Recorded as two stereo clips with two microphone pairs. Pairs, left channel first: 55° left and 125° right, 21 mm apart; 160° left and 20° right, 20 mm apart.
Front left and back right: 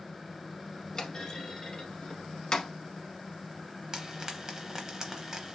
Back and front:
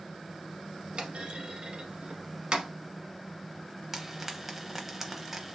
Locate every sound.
0.9 s a clunk: 5° left, 0.8 m
3.9 s frying: 85° right, 0.6 m